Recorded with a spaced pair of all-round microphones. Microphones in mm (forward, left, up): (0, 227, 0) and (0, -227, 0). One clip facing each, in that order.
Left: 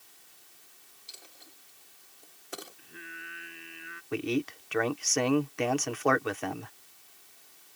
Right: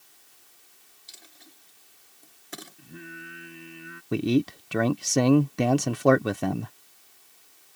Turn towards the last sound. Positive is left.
turn(degrees=-55)  # may be behind; listen again after turning